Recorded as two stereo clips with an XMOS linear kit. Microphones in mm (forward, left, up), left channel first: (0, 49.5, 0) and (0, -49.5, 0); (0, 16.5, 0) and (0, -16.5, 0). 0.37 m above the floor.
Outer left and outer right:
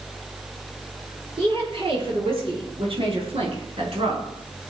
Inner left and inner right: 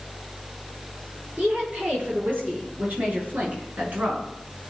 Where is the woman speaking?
65° right (ahead or behind), 8.5 m; by 4.3 s 70° right (ahead or behind), 4.5 m.